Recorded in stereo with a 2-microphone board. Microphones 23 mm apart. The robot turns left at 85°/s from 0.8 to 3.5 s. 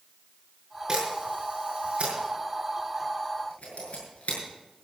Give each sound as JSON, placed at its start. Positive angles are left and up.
{"t": 0.9, "sound": "a camera shutter", "side_deg": -25, "distance_m": 7.0}